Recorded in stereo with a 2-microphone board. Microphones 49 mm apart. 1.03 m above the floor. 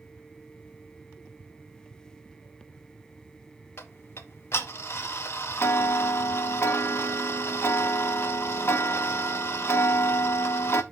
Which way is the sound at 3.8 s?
50° left (ahead or behind).